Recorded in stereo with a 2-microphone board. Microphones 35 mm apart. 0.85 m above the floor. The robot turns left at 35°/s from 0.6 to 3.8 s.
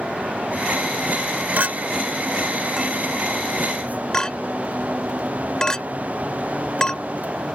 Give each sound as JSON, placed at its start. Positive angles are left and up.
{"t": 1.6, "sound": "a clink", "side_deg": -60}